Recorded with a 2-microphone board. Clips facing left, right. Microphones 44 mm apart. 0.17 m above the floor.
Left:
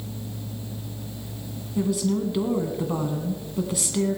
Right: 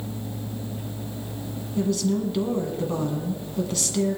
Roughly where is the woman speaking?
Centre.